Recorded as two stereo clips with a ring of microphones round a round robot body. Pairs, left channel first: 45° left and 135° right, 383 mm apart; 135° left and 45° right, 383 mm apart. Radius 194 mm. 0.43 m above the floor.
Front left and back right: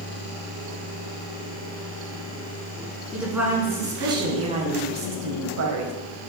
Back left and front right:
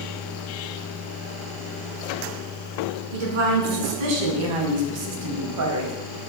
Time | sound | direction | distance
3.1 | a woman speaking | 45° right | 4.5 m